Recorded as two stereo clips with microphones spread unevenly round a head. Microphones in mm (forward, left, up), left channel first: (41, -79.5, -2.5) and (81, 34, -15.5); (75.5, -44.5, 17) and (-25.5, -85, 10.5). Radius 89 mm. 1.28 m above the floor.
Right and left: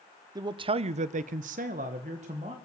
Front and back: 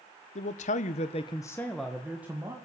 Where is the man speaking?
15° left, 0.8 m; by 2.5 s 125° left, 1.4 m.